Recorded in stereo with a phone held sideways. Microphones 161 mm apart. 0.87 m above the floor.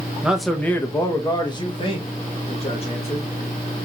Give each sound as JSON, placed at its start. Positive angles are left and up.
{"t": 0.2, "sound": "a man speaking", "side_deg": -5, "distance_m": 0.6}